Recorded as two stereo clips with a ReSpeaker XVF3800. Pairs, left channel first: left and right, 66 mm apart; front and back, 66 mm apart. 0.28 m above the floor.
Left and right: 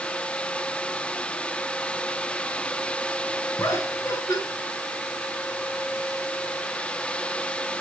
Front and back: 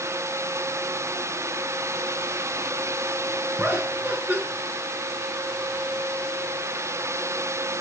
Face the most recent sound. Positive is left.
turn(degrees=120)